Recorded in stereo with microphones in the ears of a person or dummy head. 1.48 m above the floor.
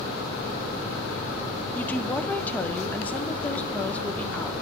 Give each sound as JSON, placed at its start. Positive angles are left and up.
{"t": 1.8, "sound": "a woman speaking", "side_deg": 10, "distance_m": 0.7}